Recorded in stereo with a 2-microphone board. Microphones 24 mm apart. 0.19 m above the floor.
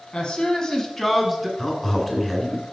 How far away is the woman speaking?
About 1.5 m.